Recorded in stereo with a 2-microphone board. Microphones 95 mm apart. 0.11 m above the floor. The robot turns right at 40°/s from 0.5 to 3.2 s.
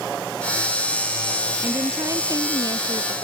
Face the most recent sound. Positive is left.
turn(degrees=-90)